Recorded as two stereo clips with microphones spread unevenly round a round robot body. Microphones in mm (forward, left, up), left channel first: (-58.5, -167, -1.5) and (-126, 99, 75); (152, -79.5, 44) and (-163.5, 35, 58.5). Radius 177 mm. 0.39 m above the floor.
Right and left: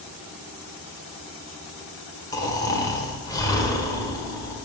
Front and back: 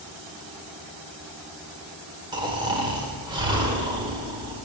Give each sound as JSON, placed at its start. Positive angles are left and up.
{"t": 2.3, "sound": "snoring", "azimuth_deg": -125, "distance_m": 1.2}